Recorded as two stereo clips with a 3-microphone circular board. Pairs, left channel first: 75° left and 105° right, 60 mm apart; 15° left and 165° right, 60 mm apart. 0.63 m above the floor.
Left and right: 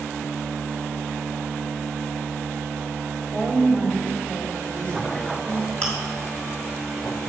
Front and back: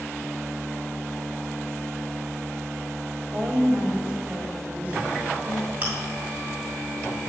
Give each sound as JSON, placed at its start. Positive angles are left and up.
{"t": 3.3, "sound": "a woman speaking", "azimuth_deg": 135, "distance_m": 1.8}
{"t": 5.8, "sound": "chewing", "azimuth_deg": 135, "distance_m": 2.5}